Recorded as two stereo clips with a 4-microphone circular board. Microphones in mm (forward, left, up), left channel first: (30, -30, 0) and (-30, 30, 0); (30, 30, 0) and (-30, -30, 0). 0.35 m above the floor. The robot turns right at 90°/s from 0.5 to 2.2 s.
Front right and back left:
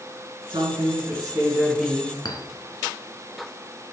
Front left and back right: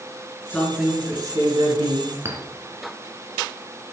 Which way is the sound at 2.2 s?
75° right.